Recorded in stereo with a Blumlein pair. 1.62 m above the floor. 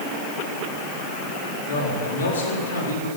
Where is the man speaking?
60° left, 4.5 m; by 3.1 s 75° left, 4.5 m.